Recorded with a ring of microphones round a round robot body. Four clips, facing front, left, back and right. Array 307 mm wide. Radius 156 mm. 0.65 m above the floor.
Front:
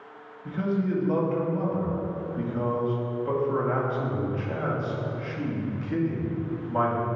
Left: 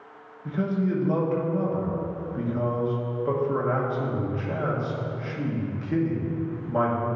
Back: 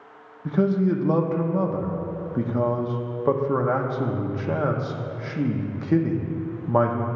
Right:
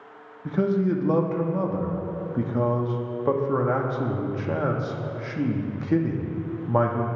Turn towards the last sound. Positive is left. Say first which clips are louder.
# right 3 dB, back 6 dB
turn(degrees=-150)